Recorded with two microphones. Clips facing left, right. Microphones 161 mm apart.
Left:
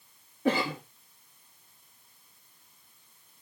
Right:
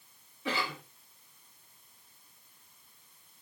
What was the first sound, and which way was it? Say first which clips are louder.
A cough: left 8 dB; 50° left (ahead or behind).